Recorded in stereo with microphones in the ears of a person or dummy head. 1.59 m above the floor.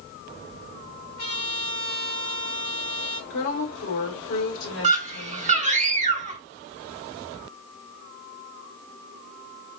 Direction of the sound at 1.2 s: 85° left.